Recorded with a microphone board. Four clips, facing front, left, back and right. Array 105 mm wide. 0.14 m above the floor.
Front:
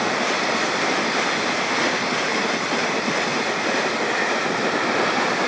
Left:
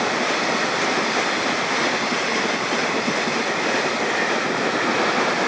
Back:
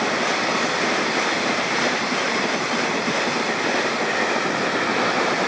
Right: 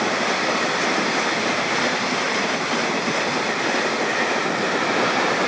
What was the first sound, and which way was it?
Only background noise.